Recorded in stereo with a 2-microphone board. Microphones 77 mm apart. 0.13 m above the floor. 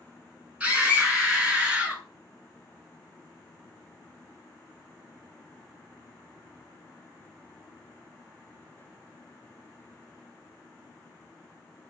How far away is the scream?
About 1.2 m.